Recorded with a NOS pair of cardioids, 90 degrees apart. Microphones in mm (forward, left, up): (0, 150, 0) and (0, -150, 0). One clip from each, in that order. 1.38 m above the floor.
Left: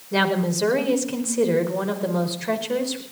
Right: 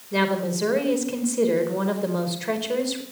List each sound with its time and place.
0.1 s a woman speaking: 20° left, 4.5 m; by 3.0 s 10° right, 4.5 m